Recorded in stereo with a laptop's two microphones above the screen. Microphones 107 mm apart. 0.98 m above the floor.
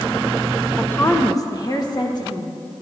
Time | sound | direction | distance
0.8 | a woman speaking | 10° left (ahead or behind) | 0.7 m